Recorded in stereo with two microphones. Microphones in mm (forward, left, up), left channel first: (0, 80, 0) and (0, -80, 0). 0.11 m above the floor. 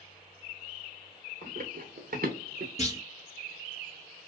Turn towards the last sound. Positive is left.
turn(degrees=45)  # may be behind; listen again after turning